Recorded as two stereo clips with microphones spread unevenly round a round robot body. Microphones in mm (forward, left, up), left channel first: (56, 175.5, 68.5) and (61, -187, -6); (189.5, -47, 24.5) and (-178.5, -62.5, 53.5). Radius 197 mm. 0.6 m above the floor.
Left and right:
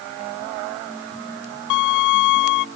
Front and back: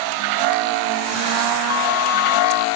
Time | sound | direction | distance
1.7 | a violin | 55° left | ?